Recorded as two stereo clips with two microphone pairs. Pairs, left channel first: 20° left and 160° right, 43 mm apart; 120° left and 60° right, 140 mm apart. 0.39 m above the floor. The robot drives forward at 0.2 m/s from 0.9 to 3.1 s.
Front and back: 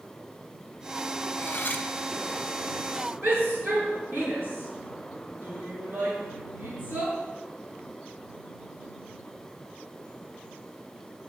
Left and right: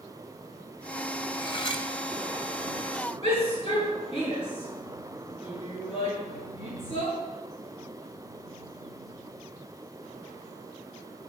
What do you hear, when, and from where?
1.4 s cutlery clinking: 65° left, 2.5 m
3.2 s a shout: 165° left, 7 m